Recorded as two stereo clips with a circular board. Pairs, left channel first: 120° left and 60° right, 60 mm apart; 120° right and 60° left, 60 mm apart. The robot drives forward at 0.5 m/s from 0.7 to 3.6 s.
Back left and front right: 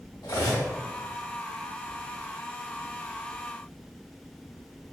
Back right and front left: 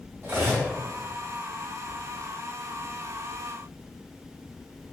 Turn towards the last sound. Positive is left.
turn(degrees=145)